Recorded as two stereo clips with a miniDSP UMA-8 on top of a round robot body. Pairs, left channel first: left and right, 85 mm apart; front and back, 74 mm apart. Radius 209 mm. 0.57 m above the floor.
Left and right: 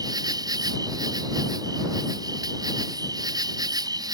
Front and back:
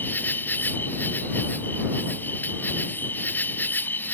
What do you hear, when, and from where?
0.0 s an insect: 60° right